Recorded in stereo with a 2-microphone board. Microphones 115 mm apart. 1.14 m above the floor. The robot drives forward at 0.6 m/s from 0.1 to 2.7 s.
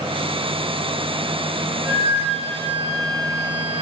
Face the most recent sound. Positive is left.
turn(degrees=20)  # may be behind; listen again after turning